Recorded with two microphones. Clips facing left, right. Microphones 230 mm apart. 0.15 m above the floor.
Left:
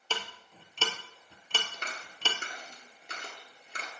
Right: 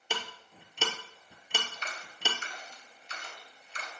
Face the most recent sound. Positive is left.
turn(degrees=60)  # may be behind; listen again after turning